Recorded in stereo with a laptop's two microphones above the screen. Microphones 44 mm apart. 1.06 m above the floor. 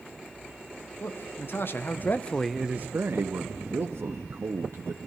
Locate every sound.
1.0 s a man speaking: 65° left (ahead or behind), 1.9 m; by 4.1 s 75° right (ahead or behind), 1.8 m
3.1 s a man speaking: 85° right, 1.1 m